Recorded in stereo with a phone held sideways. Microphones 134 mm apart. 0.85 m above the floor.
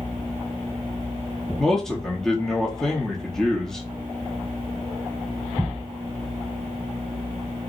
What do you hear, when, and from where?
1.6 s a man speaking: 5° left (ahead or behind), 1.0 m